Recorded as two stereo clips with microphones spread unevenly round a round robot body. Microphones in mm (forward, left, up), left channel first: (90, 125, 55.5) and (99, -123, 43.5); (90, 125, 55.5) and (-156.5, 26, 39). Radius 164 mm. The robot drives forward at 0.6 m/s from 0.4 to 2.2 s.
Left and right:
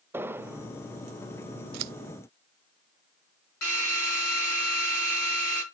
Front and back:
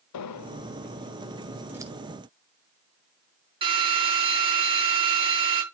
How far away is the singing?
No singing in this recording.